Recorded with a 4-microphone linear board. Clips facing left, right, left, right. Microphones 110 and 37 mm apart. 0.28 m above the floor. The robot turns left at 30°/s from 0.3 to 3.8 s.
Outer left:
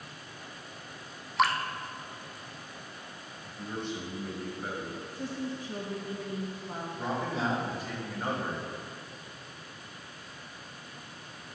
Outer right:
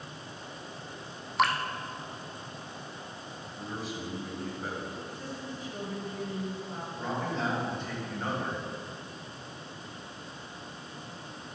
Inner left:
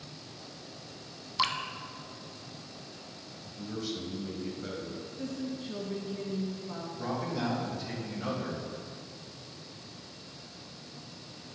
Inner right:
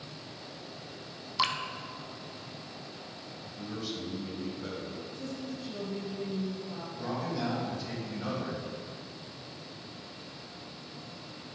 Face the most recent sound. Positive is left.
turn(degrees=10)  # may be behind; listen again after turning